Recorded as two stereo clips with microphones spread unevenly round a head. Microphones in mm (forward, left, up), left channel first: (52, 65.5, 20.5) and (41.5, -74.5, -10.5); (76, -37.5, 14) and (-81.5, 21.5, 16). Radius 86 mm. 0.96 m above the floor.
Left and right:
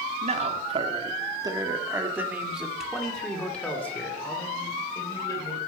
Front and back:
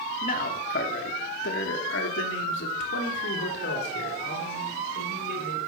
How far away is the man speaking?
About 2.5 m.